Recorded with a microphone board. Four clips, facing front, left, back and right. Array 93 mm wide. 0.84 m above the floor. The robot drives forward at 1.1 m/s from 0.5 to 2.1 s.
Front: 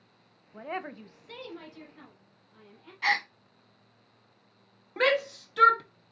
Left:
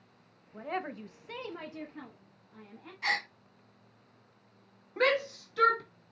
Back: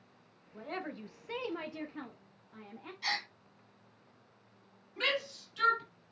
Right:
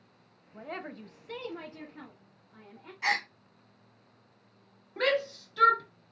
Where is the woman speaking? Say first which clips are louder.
Left 4 dB, front 4 dB; 15° left, 0.9 m; by 2.9 s 170° left, 1.4 m.